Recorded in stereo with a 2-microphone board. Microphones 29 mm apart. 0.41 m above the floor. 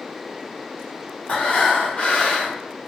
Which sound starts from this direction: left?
Breathing, at 1.3 s.